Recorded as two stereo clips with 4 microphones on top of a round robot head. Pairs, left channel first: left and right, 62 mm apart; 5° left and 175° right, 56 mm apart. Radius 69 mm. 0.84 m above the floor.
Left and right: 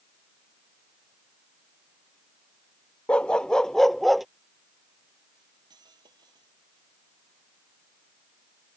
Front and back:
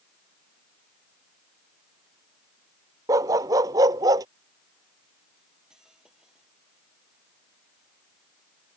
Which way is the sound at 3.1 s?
165° left.